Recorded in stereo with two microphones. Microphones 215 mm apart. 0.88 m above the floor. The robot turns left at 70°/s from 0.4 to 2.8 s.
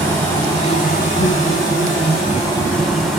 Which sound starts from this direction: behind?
An insect, at 0.0 s.